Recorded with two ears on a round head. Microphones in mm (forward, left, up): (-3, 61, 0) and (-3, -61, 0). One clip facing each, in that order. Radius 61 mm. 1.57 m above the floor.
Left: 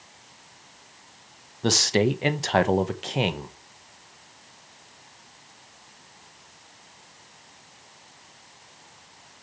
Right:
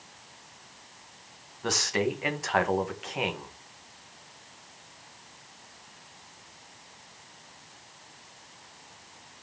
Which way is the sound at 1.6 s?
35° left (ahead or behind).